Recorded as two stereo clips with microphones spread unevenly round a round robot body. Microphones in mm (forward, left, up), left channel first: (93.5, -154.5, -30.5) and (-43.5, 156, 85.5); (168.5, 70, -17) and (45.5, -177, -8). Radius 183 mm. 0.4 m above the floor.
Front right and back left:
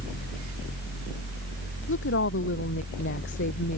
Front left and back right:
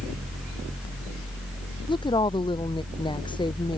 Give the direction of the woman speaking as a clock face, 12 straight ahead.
12 o'clock.